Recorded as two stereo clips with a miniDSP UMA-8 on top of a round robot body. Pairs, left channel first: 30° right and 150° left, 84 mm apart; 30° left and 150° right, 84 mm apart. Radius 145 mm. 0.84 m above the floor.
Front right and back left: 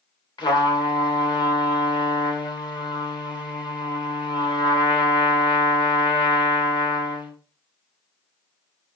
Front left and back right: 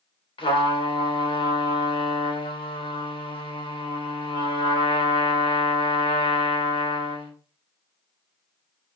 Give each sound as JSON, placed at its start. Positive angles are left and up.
{"t": 0.4, "sound": "a trumpet", "azimuth_deg": 5, "distance_m": 2.5}